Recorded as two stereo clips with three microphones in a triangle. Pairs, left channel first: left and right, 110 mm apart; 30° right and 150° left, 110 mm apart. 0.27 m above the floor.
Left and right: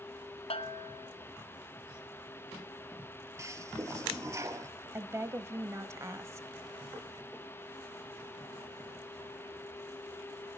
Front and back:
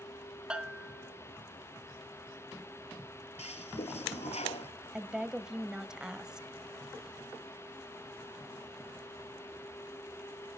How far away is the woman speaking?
About 1.0 m.